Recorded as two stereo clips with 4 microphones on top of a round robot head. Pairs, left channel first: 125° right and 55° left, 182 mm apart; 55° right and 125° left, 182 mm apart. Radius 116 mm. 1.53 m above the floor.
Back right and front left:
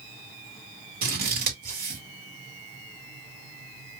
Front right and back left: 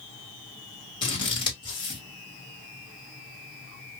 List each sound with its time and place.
1.0 s scissors: 10° left, 1.4 m